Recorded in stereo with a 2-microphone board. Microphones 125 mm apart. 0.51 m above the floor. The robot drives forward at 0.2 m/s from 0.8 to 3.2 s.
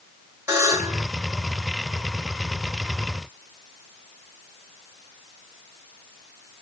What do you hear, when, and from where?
0.5 s a buzzer: 25° right (ahead or behind), 1.9 m; by 1.1 s 20° right (ahead or behind), 2.0 m